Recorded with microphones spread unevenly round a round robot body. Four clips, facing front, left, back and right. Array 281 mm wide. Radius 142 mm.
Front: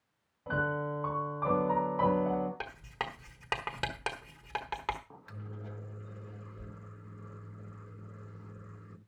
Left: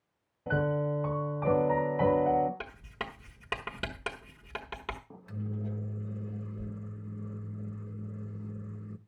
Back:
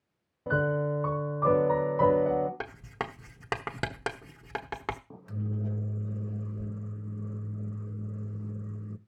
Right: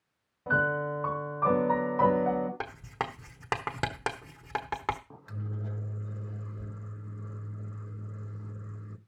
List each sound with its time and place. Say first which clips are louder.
0.5 s a piano: right 1 dB, back 5 dB; 175° left, 1.9 m
2.6 s writing: right 6 dB, back 3 dB; 160° right, 1.1 m
5.1 s a microwave: left 2 dB, back 10 dB; 170° left, 0.6 m